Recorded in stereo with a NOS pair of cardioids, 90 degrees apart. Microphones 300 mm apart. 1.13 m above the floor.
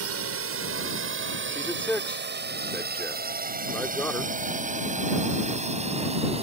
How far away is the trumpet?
No trumpet in this recording.